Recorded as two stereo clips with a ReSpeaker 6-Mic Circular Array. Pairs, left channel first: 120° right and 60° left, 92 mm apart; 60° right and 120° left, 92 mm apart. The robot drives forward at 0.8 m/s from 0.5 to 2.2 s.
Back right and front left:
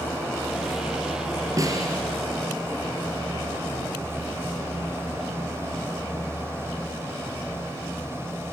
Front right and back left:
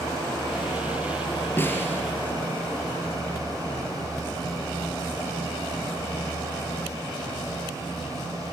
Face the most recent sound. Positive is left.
turn(degrees=10)